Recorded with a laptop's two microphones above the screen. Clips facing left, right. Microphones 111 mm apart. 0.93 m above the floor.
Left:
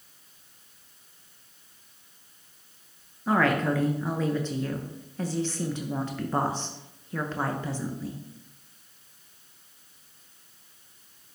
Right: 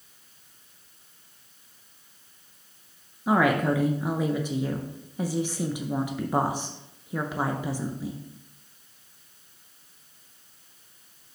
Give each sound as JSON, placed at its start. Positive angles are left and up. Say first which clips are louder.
{"t": 3.3, "sound": "a woman speaking", "louder": "right 2 dB", "side_deg": -15, "distance_m": 0.6}